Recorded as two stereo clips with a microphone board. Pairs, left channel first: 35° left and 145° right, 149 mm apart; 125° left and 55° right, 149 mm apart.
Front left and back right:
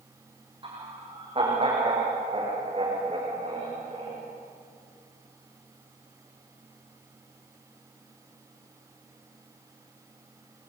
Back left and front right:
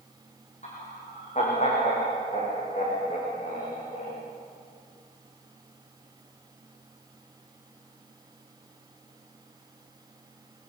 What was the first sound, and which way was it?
Laughter, 160° left.